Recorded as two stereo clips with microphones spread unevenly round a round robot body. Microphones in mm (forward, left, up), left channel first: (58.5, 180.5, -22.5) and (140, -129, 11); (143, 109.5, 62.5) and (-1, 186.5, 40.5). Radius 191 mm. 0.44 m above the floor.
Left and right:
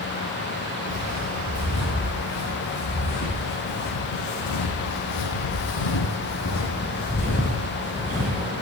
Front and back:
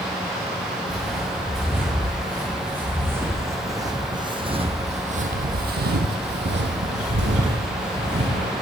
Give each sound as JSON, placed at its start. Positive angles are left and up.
{"t": 0.9, "sound": "footsteps", "azimuth_deg": 60, "distance_m": 3.5}